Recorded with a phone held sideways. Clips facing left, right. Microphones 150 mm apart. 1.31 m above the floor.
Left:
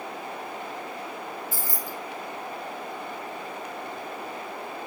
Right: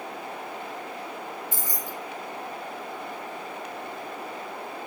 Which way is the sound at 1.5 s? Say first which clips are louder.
Even; 20° right (ahead or behind).